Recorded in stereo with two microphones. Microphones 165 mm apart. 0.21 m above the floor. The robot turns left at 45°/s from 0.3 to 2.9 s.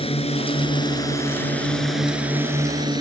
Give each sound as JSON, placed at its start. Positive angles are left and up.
{"t": 0.0, "sound": "a drone", "side_deg": 35}